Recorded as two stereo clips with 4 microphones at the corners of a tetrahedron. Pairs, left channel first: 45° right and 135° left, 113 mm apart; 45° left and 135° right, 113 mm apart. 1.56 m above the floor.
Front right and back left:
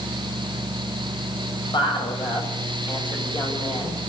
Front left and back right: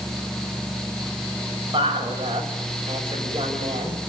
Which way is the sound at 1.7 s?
95° right.